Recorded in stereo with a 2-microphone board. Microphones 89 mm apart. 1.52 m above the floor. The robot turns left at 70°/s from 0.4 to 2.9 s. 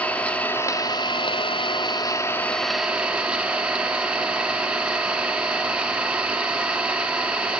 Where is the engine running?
165° left, 2 m; by 7.6 s 10° right, 2 m.